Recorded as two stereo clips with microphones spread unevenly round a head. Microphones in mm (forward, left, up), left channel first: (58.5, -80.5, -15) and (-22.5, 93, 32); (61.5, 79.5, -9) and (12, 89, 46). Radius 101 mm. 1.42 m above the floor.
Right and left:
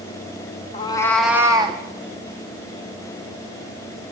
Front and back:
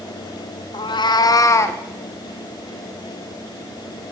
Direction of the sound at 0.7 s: Straight ahead.